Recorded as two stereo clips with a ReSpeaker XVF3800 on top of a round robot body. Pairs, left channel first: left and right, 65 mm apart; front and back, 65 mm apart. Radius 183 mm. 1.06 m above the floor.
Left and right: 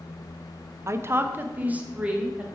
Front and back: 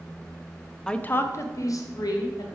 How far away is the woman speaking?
About 0.7 m.